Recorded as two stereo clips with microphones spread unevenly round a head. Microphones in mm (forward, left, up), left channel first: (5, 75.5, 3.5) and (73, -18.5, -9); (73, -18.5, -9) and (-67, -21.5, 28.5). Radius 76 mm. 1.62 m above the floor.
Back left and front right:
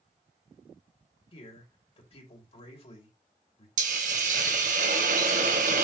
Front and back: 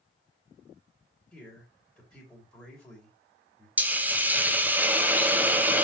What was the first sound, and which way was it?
A man speaking, 90° left.